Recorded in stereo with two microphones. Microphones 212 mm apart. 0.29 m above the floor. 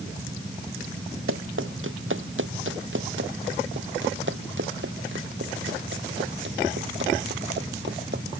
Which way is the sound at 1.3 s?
70° right (ahead or behind).